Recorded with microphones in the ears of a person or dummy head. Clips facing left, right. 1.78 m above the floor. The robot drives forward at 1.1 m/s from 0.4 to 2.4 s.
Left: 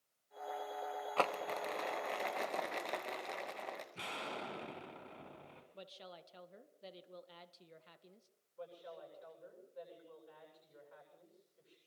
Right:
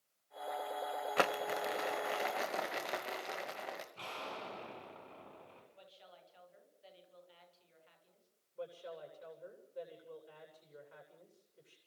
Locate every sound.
1.2 s crumpling: 20° right (ahead or behind), 1.0 m; by 3.9 s 10° right (ahead or behind), 2.5 m
4.0 s an explosion: 25° left (ahead or behind), 2.5 m
5.7 s a woman speaking: 70° left (ahead or behind), 2 m
8.6 s a woman speaking: 40° right (ahead or behind), 9 m